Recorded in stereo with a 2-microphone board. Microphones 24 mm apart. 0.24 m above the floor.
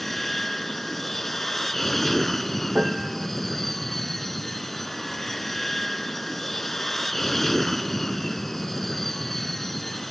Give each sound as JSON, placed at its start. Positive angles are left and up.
{"t": 0.0, "sound": "an aircraft", "side_deg": 10}
{"t": 2.8, "sound": "a piano", "side_deg": -35}